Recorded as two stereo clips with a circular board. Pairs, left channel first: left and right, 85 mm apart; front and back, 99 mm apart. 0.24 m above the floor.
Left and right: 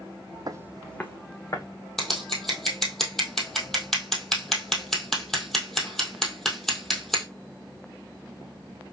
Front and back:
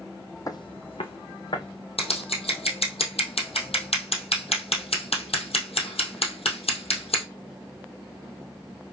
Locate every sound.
0.5 s footsteps: 50° right, 0.6 m; by 1.7 s 40° left, 1.7 m
2.0 s scissors: 5° left, 1.9 m